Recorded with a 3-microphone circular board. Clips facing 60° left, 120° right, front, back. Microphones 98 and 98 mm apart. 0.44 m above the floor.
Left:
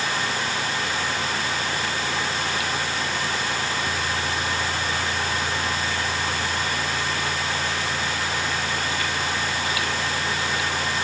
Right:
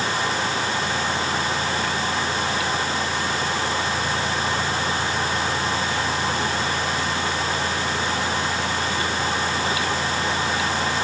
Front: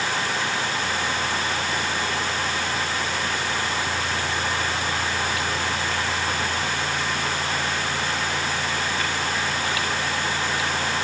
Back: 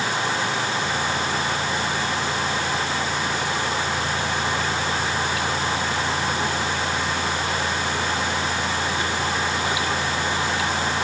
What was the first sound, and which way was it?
Only background noise.